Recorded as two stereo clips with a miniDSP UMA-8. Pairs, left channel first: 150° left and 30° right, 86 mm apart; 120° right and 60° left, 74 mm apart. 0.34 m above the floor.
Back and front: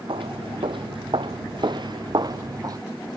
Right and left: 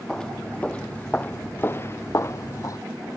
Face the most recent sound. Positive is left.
turn(degrees=-75)